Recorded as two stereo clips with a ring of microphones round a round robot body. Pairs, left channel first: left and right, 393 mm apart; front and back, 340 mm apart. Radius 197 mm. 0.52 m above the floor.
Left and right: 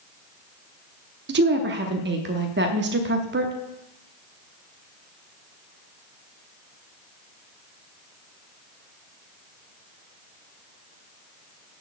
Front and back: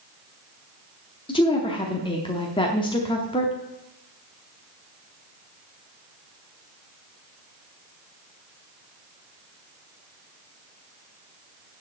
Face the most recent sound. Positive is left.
turn(degrees=-60)